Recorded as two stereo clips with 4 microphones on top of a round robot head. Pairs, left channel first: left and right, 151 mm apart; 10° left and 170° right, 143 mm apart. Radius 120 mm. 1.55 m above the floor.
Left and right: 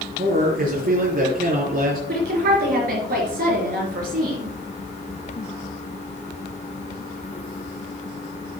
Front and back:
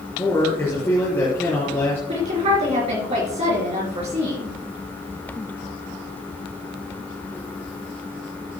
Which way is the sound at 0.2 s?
65° right.